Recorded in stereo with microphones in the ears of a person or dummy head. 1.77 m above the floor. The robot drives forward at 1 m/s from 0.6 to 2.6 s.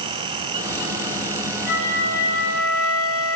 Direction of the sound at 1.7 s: 70° left (ahead or behind).